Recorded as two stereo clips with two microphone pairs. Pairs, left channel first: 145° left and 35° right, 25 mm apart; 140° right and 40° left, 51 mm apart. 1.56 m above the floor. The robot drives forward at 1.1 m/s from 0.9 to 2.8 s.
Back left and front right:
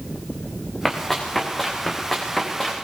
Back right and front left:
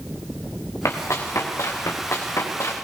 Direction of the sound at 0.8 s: 125° right.